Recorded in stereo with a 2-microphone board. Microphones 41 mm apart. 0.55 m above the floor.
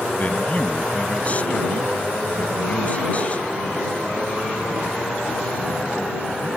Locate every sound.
0.1 s a man speaking: 35° left (ahead or behind)